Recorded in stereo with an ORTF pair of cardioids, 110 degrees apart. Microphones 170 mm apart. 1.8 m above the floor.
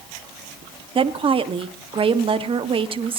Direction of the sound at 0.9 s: 30° right.